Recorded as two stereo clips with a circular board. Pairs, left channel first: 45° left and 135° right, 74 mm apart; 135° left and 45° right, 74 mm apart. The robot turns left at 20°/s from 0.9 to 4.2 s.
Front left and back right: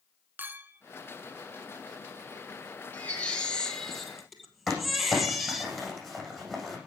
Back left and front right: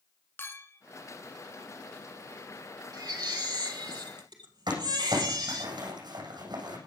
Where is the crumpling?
45° right, 8 m.